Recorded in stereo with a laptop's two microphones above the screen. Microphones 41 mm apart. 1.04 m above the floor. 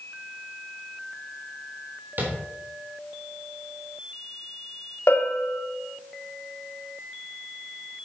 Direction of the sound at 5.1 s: 75° left (ahead or behind).